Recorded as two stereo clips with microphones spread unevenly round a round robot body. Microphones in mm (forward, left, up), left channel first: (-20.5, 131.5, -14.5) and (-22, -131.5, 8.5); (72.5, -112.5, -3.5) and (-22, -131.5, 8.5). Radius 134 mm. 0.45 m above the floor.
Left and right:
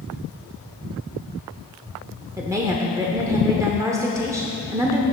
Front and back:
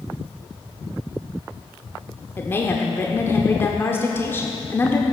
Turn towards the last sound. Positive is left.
turn(degrees=-10)